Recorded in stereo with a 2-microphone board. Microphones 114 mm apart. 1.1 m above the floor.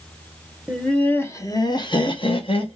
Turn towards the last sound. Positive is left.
turn(degrees=55)  # may be behind; listen again after turning